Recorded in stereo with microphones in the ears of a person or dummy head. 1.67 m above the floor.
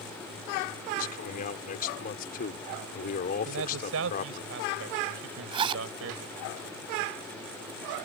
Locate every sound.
1.0 s a man speaking: 45° left (ahead or behind)
3.5 s a man speaking: 80° right
5.5 s a zipper: 30° right (ahead or behind)